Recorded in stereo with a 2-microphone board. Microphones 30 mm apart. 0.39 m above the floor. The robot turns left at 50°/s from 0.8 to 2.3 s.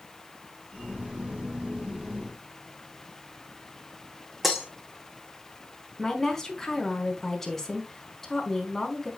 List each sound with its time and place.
4.4 s breaking glass: 5° right (ahead or behind), 2 m
6.0 s a woman speaking: 15° left (ahead or behind), 4 m